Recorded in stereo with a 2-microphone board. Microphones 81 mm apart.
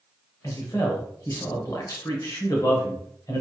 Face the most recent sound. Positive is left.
turn(degrees=45)  # may be behind; listen again after turning